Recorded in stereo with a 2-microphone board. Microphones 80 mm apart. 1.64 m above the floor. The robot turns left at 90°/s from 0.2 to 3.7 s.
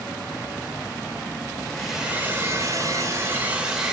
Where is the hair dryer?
15° left, 0.9 m; by 3.9 s 165° right, 0.9 m.